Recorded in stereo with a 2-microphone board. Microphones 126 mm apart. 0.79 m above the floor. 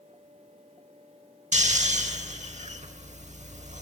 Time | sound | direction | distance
1.5 | snoring | 70° right (ahead or behind) | 0.9 m